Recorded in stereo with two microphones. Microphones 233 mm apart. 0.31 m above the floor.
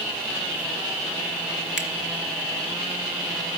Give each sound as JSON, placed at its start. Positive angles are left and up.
{"t": 1.8, "sound": "a finger snap", "side_deg": 50, "distance_m": 3.0}